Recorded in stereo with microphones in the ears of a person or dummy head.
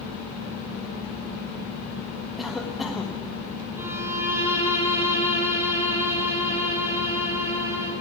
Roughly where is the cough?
Centre.